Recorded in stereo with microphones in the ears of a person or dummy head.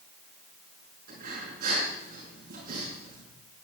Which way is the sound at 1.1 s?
55° right (ahead or behind).